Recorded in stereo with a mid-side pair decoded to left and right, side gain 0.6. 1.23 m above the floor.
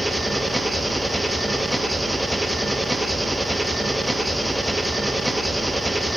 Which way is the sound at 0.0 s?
5° right.